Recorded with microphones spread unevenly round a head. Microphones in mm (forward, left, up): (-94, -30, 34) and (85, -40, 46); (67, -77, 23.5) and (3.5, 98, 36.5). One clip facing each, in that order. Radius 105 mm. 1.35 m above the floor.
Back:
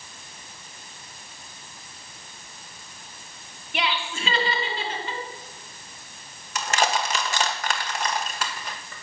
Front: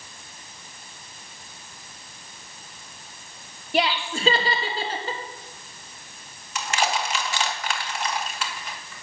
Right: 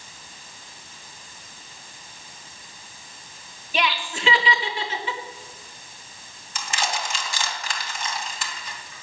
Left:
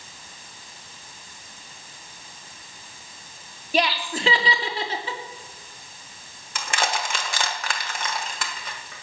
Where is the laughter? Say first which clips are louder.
Front 5 dB, left 3 dB; 60° left, 2.5 m.